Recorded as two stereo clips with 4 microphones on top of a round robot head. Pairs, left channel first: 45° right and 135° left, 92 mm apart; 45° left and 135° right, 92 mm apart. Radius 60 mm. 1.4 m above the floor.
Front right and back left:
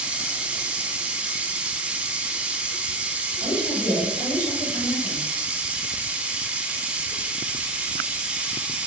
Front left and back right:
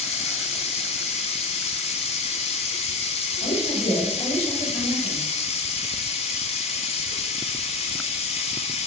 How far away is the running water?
About 0.9 m.